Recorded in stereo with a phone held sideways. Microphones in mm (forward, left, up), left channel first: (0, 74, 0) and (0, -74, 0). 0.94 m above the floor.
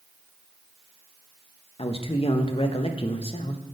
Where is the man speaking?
40° left (ahead or behind), 0.7 m.